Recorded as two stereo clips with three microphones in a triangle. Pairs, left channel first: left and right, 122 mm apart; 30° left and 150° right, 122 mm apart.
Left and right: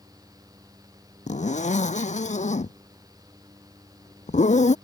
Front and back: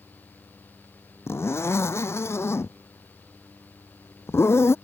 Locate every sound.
1.3 s a zipper: 100° left